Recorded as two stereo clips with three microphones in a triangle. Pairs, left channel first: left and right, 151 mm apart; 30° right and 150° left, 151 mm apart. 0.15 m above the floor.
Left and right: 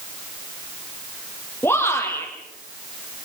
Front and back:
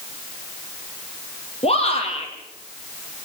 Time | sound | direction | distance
1.6 | a shout | 15° left | 6 m